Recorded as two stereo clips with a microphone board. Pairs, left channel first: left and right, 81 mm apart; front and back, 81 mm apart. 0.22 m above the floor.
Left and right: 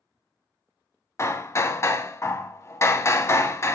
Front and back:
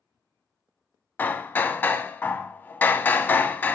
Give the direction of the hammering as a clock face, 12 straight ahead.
10 o'clock.